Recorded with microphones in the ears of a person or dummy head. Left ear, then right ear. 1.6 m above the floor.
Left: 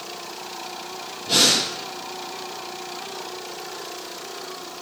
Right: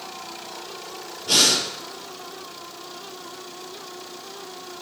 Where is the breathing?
50° right (ahead or behind), 5.5 m.